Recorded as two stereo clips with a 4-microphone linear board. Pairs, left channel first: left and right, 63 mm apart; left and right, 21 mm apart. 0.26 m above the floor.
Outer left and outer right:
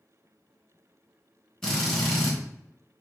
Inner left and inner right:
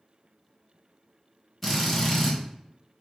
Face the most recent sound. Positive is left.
turn(degrees=10)  # may be behind; listen again after turning